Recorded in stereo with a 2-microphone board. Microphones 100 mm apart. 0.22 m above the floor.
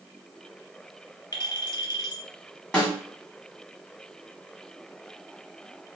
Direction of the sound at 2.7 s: 10° left (ahead or behind).